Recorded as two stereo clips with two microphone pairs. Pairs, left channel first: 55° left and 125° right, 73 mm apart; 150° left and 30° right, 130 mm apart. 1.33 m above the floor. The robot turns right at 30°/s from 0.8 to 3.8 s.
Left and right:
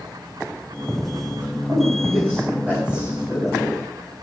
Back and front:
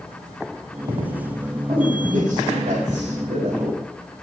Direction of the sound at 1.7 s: 75° right.